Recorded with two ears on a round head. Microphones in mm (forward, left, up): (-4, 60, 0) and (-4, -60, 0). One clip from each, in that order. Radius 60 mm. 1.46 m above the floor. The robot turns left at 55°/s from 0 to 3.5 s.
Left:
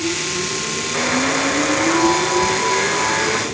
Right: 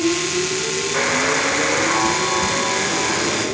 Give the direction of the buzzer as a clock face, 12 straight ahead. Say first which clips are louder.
Even; 3 o'clock.